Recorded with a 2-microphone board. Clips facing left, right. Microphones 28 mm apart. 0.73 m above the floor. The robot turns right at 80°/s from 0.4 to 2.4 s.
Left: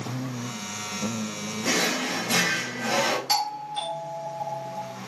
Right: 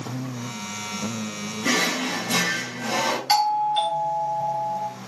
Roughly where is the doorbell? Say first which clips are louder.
Right 7 dB; right.